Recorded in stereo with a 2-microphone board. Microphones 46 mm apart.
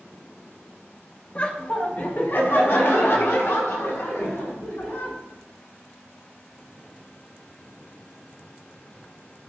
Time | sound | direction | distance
1.4 | laughter | 30° left (ahead or behind) | 1.1 m